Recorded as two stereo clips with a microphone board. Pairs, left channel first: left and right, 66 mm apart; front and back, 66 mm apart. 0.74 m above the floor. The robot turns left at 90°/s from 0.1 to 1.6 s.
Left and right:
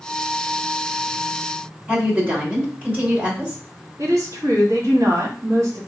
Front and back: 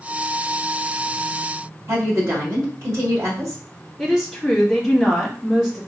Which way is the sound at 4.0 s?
95° right.